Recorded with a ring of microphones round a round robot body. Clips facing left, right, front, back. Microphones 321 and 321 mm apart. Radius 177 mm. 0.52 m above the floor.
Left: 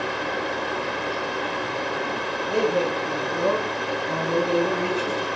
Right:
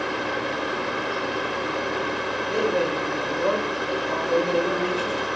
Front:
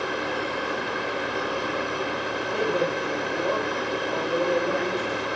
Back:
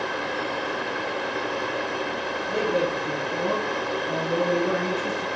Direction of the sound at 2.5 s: 135° left.